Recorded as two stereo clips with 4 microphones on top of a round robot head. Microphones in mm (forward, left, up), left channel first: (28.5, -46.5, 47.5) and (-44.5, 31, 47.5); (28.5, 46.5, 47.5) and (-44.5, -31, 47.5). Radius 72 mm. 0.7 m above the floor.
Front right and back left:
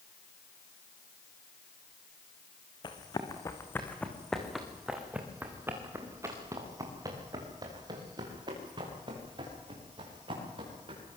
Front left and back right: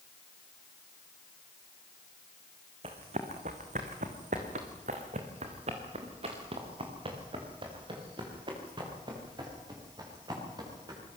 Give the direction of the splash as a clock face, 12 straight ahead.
I don't hear a splash.